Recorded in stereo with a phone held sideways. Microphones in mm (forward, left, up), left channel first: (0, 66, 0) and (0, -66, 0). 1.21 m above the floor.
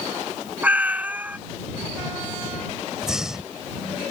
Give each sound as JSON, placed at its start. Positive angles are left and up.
{"t": 0.6, "sound": "a cat meowing", "side_deg": -15}
{"t": 3.0, "sound": "breathing", "side_deg": -5}